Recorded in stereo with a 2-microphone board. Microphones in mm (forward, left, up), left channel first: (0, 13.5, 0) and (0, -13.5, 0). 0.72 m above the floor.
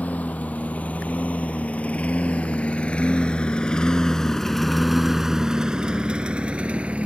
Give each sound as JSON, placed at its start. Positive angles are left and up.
{"t": 0.0, "sound": "a lawn mower", "side_deg": 70}